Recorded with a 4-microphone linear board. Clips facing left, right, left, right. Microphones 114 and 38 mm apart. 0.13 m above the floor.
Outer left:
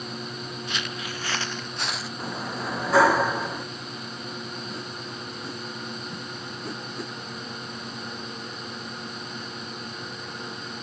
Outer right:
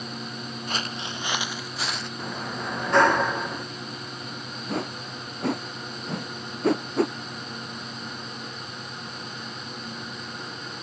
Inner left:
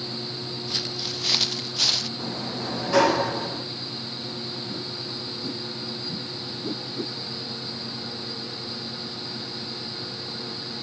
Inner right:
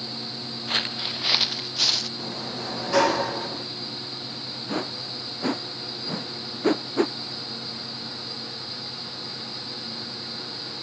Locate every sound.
0.7 s footsteps: 45° right (ahead or behind); by 2.1 s 5° left (ahead or behind)
2.2 s a sliding door: 5° left (ahead or behind)
4.7 s a whoosh: 70° right (ahead or behind)